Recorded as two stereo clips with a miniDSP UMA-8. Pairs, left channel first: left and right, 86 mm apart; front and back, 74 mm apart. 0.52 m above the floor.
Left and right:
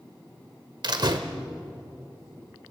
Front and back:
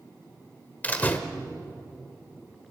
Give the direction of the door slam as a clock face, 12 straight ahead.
2 o'clock.